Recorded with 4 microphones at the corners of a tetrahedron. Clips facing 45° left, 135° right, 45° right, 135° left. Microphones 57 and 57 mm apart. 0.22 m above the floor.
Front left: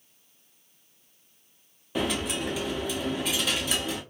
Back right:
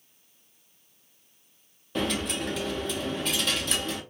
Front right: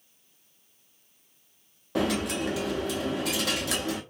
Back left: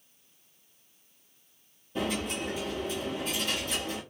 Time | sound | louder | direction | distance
1.9 | a dropped coin | even, front right 5 dB | 35° right | 0.7 m